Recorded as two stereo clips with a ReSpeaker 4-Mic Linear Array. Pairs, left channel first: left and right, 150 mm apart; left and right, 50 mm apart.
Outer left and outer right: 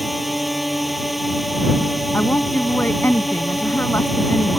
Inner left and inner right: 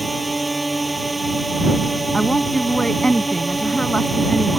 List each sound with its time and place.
0.0 s a drone: centre (ahead or behind)
2.1 s a woman speaking: 15° left (ahead or behind)